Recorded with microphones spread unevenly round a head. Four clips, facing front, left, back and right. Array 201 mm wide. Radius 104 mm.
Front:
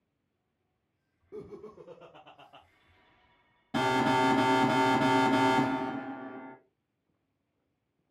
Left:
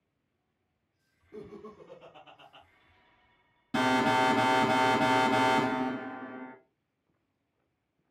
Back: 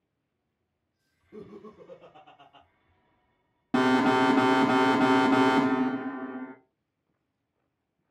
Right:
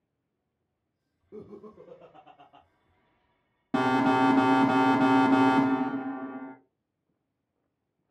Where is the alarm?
155° right, 0.9 m.